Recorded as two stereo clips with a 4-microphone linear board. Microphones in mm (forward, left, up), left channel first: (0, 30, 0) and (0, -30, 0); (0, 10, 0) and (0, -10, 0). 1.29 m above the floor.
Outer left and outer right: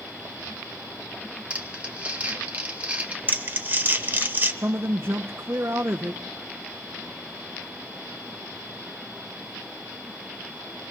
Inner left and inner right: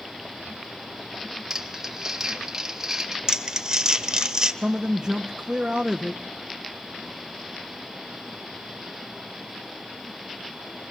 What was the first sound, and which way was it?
Crumpling, 20° right (ahead or behind).